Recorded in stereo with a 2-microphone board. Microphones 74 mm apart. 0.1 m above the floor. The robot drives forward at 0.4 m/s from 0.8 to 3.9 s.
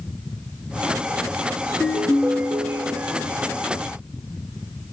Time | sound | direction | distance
1.7 | a ringtone | 15° right (ahead or behind) | 0.7 m